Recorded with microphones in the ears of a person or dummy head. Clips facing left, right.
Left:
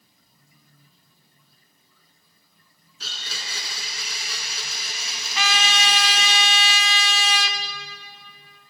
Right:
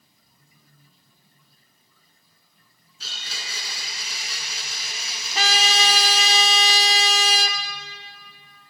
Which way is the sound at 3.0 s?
65° left (ahead or behind).